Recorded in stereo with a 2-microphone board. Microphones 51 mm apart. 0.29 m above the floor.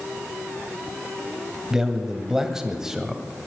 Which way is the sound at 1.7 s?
10° right (ahead or behind).